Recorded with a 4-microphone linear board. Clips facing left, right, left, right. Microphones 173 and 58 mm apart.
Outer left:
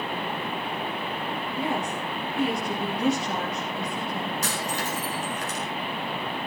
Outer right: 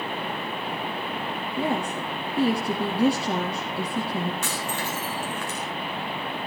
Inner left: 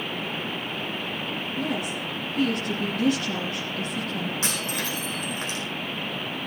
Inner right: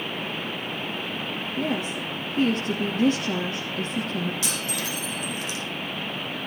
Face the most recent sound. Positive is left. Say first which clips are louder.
# even, inner left 1 dB
turn(degrees=40)  # may be behind; listen again after turning